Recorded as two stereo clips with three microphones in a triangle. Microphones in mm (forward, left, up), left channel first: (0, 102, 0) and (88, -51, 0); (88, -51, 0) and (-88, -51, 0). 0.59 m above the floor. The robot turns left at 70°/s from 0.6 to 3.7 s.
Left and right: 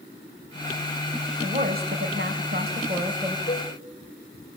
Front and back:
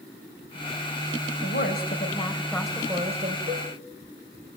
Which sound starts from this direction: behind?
A cowbell, at 3.5 s.